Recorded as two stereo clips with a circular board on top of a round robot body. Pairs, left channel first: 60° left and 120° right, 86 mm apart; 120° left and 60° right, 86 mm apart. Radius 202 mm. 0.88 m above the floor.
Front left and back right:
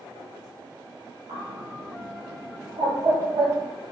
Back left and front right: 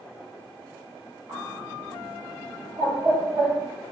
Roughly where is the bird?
Behind right.